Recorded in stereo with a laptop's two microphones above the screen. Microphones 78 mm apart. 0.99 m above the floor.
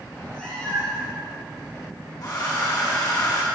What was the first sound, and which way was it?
A cat meowing, 5° left (ahead or behind).